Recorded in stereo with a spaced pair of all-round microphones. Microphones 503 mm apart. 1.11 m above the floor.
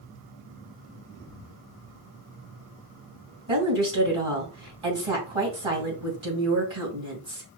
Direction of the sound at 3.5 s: 70° right (ahead or behind).